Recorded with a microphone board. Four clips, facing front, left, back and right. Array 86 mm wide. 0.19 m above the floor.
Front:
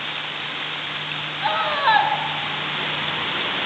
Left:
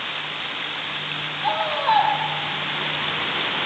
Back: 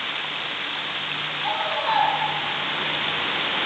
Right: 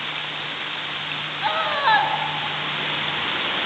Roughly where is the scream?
Ahead right.